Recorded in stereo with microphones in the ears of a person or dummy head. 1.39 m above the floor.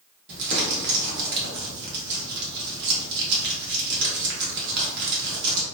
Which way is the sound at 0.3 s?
60° right (ahead or behind).